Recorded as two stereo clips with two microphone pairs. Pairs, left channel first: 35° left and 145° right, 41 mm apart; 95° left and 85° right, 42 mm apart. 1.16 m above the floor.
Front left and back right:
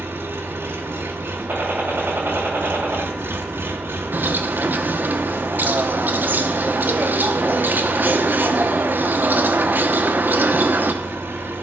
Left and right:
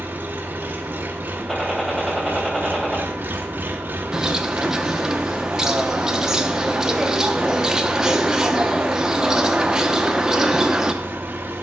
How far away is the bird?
About 0.8 m.